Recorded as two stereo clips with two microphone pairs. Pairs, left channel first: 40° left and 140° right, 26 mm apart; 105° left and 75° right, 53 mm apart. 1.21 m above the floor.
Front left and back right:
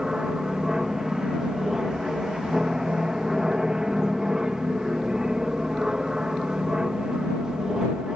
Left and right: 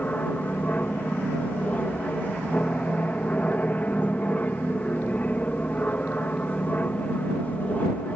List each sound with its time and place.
0.0 s an aircraft: 155° left